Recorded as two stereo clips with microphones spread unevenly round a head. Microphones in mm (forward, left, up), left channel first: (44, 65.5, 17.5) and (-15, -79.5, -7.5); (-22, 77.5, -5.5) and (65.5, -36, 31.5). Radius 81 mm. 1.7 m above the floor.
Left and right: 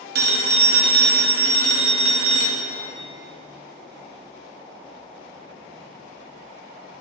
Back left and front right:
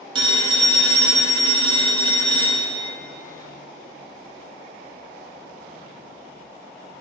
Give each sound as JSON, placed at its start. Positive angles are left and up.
{"t": 0.1, "sound": "a phone ringing", "azimuth_deg": -95, "distance_m": 0.9}